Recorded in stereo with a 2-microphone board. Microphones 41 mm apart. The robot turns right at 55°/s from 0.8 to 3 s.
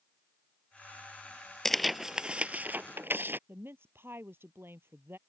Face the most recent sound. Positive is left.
turn(degrees=-75)  # may be behind; listen again after turning